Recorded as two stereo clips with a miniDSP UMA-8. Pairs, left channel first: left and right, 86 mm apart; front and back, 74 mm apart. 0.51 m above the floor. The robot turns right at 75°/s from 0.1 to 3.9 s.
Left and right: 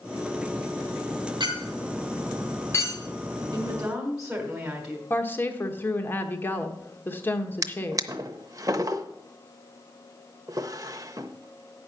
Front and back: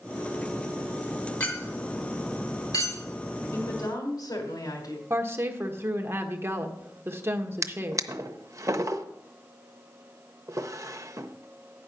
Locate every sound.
1.4 s a clink: 75° right, 3 m; by 3.0 s 50° left, 3 m
3.5 s a woman speaking: 35° right, 2.5 m; by 5.0 s 10° right, 2.5 m
5.1 s a woman speaking: 145° left, 1.1 m
7.6 s a drawer: 135° right, 0.6 m